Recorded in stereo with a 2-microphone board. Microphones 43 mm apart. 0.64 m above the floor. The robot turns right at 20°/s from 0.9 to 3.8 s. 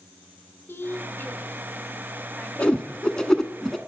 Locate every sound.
0.7 s a woman speaking: 60° left (ahead or behind), 1.8 m; by 2.5 s 35° left (ahead or behind), 1.8 m
2.6 s a whoosh: 25° left (ahead or behind), 1.2 m; by 3.8 s centre (ahead or behind), 1.2 m